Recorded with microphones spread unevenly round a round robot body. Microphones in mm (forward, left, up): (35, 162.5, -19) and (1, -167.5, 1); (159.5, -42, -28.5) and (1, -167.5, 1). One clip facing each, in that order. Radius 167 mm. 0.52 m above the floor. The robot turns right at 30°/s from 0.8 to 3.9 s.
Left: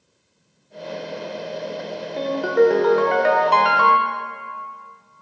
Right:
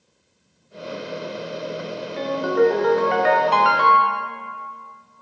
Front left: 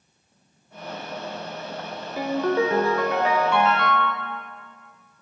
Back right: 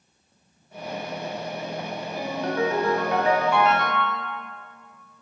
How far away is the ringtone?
About 0.9 m.